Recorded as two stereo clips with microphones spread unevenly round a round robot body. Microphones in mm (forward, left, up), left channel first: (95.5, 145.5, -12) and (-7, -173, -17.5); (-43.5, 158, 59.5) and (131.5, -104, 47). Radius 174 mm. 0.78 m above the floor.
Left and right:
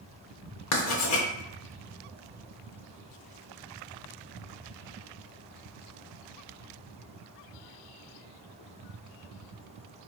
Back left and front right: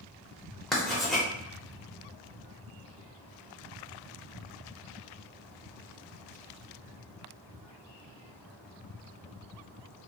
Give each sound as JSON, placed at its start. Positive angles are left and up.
{"t": 0.7, "sound": "writing", "azimuth_deg": 35, "distance_m": 0.7}